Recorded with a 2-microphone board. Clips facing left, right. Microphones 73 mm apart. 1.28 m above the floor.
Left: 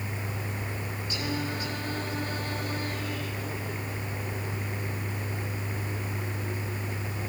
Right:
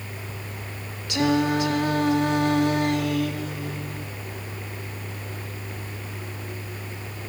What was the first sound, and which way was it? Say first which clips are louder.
Singing: right 13 dB; 75° right (ahead or behind).